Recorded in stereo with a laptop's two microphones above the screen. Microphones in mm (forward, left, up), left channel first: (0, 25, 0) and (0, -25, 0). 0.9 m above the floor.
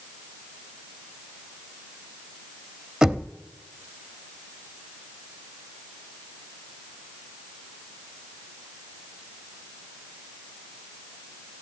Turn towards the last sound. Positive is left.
turn(degrees=-15)  # may be behind; listen again after turning